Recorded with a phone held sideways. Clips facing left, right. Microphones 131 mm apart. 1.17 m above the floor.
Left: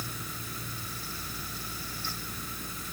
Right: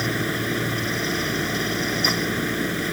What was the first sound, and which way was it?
A fan, 85° right.